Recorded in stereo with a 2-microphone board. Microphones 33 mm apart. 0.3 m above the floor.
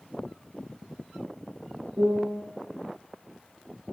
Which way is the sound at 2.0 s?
70° right (ahead or behind).